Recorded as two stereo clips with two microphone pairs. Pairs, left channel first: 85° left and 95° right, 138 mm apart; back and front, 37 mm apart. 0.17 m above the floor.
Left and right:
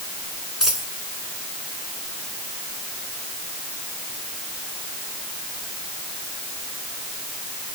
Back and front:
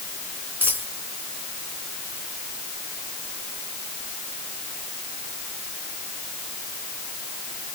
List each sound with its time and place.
0.6 s a dropped coin: 5° right, 4 m